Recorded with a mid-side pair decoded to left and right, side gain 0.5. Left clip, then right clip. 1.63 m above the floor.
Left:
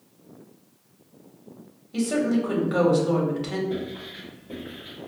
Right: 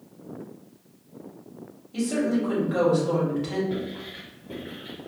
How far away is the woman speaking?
About 1.8 m.